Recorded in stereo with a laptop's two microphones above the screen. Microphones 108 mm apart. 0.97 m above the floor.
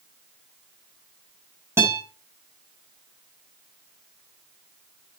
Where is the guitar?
20° right (ahead or behind), 6.5 m.